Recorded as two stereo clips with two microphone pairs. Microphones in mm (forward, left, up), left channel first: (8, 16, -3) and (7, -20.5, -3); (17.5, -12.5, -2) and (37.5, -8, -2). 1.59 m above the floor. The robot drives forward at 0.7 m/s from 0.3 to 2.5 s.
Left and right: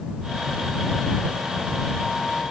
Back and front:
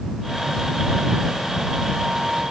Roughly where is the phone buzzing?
I don't hear a phone buzzing.